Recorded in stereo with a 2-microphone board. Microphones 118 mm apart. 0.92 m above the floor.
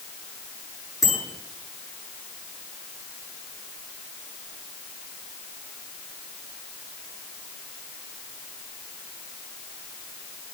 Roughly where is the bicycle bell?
Left.